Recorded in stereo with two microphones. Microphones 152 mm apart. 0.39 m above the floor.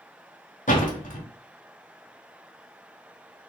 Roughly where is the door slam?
Left.